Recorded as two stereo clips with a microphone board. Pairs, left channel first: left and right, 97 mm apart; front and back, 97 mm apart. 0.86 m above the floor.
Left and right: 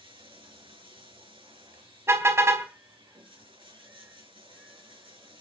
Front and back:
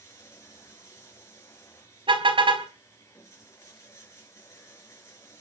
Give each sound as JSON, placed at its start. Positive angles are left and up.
{"t": 0.0, "sound": "running water", "azimuth_deg": -60, "distance_m": 5.5}
{"t": 2.1, "sound": "a car horn", "azimuth_deg": -155, "distance_m": 3.5}